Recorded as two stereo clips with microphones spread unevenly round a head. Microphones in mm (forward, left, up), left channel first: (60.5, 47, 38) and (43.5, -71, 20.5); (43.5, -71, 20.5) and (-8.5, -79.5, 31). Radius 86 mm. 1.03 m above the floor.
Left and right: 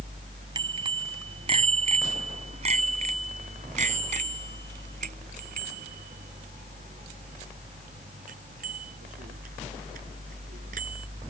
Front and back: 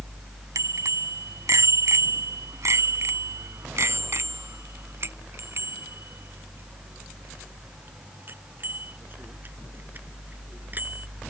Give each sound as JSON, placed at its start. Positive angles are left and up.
{"t": 0.6, "sound": "a bicycle bell", "azimuth_deg": -165}